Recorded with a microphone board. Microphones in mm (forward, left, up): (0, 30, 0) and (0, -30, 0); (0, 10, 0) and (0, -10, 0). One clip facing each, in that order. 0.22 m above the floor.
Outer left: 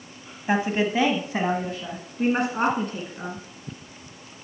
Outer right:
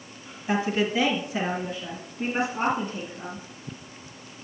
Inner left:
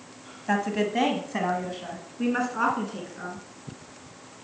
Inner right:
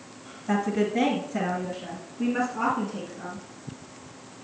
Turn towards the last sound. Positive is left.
turn(degrees=65)  # may be behind; listen again after turning